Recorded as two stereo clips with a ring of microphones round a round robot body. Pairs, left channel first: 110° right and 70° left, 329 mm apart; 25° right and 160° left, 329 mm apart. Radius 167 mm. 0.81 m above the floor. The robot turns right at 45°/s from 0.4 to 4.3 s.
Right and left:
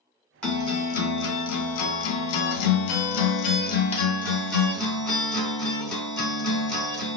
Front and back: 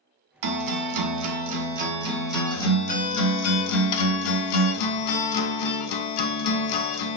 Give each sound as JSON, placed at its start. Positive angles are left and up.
{"t": 0.4, "sound": "a guitar", "azimuth_deg": 160, "distance_m": 0.7}